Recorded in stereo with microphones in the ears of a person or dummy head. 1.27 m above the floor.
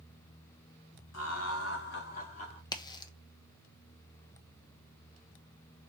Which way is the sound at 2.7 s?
20° left (ahead or behind).